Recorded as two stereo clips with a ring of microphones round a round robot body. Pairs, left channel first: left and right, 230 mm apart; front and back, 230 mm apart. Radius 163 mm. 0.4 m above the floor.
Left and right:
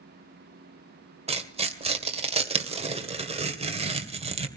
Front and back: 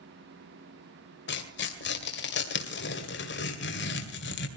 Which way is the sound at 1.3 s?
30° right.